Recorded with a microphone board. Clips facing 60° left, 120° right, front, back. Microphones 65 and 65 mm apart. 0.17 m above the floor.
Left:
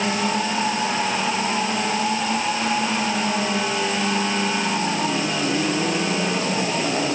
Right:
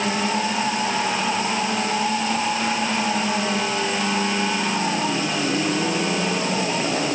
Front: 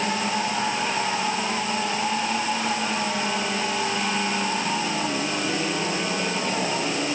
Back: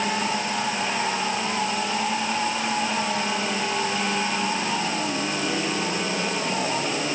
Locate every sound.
Only background noise.